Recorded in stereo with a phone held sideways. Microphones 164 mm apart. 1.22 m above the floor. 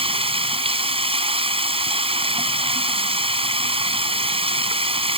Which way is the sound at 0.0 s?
35° right (ahead or behind).